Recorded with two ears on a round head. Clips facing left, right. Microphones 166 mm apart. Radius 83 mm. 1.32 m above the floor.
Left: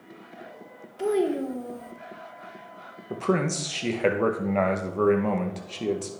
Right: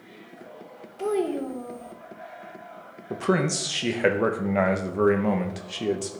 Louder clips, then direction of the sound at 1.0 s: Left 1 dB; 10° left (ahead or behind).